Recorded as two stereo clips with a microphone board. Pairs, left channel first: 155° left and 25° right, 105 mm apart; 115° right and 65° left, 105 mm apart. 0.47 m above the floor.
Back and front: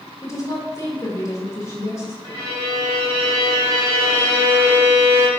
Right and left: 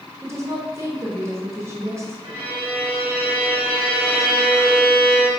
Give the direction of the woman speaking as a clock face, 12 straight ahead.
8 o'clock.